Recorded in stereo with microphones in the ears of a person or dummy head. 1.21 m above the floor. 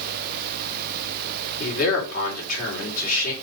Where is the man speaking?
45° left (ahead or behind), 5.5 m.